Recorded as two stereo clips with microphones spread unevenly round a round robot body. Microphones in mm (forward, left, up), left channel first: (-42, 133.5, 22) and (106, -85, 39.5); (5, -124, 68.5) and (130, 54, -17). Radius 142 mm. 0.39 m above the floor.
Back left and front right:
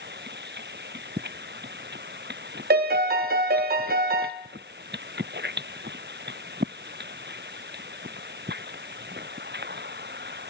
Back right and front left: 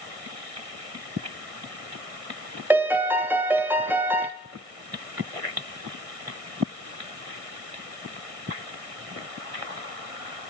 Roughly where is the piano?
Ahead.